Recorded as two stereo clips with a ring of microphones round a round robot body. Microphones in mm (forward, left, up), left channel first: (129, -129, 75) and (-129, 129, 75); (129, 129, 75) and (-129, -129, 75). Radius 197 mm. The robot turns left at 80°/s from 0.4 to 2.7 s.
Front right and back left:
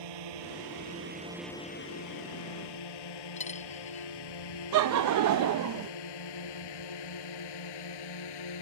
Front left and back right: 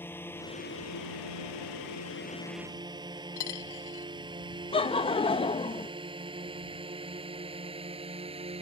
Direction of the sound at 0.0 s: 130° left.